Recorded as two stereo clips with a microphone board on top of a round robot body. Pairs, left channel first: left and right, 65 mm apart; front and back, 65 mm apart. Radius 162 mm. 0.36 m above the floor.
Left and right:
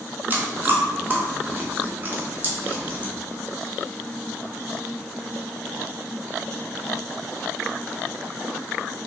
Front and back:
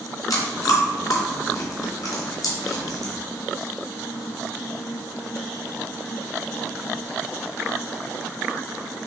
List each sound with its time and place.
0.3 s chewing: 30° right, 0.9 m